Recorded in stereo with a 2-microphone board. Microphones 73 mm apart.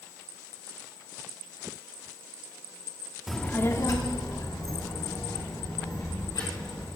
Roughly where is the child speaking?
Centre.